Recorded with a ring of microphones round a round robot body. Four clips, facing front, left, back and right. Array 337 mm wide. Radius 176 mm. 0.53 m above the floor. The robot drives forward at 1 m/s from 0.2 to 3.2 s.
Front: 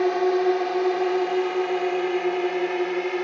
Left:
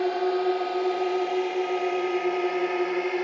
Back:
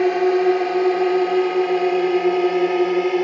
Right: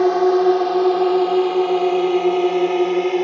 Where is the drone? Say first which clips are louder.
Right 10 dB, back 4 dB; 115° right; by 3.2 s 130° right.